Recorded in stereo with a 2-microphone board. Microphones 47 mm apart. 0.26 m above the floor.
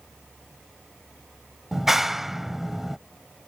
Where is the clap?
5° right (ahead or behind).